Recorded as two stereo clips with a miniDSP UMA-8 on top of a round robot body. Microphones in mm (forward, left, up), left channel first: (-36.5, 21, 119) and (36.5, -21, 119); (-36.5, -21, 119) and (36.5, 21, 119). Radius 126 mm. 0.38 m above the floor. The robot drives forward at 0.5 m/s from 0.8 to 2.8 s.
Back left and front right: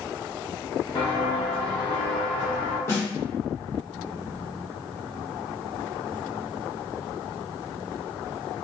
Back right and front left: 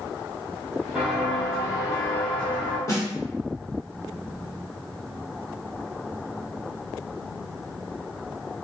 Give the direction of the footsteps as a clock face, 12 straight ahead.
8 o'clock.